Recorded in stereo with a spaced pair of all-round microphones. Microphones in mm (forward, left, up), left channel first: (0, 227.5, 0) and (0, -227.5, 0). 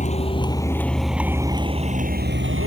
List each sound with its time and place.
0.0 s a vehicle: 15° left (ahead or behind); by 2.7 s 30° right (ahead or behind)